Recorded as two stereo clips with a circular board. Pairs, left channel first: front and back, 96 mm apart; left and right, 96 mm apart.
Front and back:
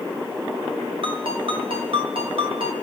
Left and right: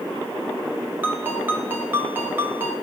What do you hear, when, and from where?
1.0 s a ringtone: 160° right, 2 m